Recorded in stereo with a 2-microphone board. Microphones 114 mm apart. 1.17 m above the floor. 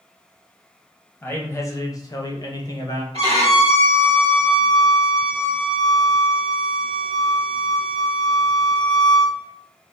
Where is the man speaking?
15° left (ahead or behind), 0.7 m; by 3.0 s 35° left (ahead or behind), 0.8 m.